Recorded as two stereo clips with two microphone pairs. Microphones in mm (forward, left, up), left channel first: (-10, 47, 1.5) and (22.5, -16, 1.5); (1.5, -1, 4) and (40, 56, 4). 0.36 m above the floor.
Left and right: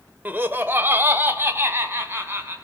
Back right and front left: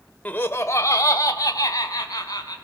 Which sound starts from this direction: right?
Laughter, at 0.2 s.